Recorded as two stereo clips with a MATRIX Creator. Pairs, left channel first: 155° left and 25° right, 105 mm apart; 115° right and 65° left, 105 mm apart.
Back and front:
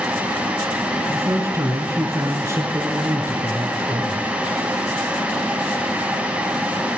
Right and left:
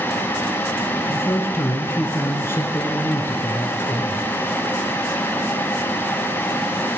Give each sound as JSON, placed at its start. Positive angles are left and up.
{"t": 1.1, "sound": "a man speaking", "azimuth_deg": -65, "distance_m": 1.4}